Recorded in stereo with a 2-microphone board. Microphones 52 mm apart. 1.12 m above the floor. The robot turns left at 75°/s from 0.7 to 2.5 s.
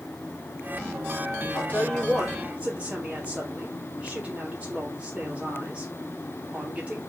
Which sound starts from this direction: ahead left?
A woman speaking, at 1.5 s.